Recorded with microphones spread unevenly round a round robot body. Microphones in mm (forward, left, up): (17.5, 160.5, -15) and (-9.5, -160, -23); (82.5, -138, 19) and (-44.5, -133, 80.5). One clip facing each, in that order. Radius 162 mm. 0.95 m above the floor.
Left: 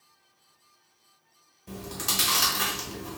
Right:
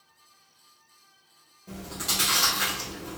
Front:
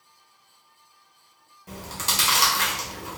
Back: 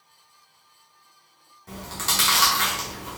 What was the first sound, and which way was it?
Chewing, 15° left.